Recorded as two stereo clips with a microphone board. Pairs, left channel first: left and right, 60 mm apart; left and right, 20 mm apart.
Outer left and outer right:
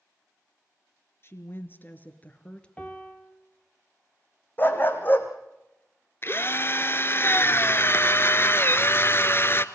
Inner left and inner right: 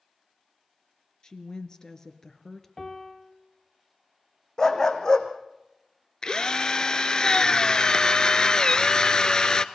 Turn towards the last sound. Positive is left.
turn(degrees=40)  # may be behind; listen again after turning